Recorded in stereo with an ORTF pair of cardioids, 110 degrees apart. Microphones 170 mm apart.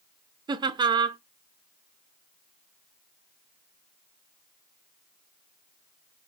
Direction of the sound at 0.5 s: 25° right.